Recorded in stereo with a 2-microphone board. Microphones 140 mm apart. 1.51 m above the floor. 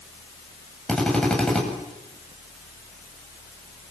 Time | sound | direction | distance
0.9 | a drill | 5° left (ahead or behind) | 8 m